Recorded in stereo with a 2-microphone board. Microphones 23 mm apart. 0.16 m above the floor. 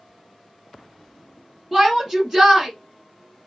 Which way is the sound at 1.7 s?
5° right (ahead or behind).